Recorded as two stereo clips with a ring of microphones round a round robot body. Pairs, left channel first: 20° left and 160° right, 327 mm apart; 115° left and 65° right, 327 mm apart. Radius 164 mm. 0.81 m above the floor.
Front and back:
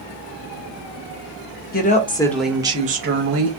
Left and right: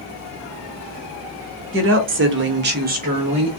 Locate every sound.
1.7 s a woman speaking: 30° right, 1.0 m; by 3.5 s 135° right, 1.0 m